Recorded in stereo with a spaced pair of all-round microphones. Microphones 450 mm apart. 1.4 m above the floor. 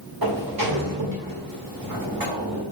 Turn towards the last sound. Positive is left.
turn(degrees=-45)  # may be behind; listen again after turning